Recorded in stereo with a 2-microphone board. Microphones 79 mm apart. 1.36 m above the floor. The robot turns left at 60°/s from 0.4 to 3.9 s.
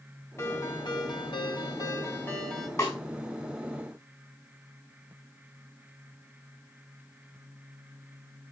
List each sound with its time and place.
0.4 s a ringtone: 140° left, 4 m; by 2.7 s 5° left, 4 m
2.8 s a snare drum: 40° left (ahead or behind), 5.5 m; by 3.0 s 50° left (ahead or behind), 5.5 m